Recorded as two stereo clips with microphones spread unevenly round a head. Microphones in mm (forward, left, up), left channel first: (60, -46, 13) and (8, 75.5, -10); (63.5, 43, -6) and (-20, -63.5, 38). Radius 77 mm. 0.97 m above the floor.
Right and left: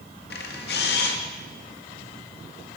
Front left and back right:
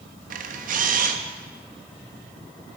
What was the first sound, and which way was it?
A camera shutter, 95° right.